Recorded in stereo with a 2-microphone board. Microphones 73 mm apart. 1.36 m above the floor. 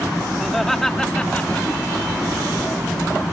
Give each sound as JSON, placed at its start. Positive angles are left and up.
{"t": 0.4, "sound": "laughter", "side_deg": 0}